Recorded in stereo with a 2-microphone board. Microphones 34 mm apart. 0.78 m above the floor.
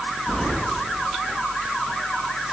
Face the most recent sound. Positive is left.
turn(degrees=25)  # may be behind; listen again after turning